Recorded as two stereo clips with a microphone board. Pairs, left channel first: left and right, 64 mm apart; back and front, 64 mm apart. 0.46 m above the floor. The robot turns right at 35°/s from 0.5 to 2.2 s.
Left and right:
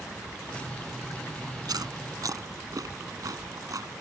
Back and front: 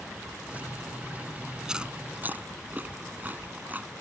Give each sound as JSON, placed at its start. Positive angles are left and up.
{"t": 1.6, "sound": "chewing", "azimuth_deg": -80}